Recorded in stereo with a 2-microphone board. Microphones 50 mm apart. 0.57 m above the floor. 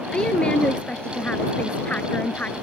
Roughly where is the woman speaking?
Centre.